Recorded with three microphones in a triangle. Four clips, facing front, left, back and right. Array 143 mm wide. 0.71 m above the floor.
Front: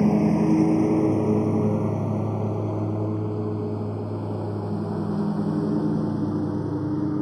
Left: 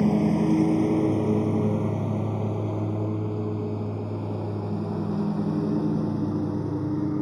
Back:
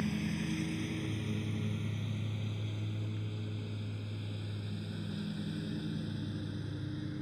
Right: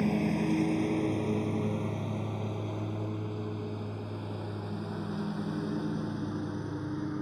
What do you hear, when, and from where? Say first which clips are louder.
0.0 s a lawn mower: left 7 dB, front 17 dB; 30° left; by 7.2 s 35° left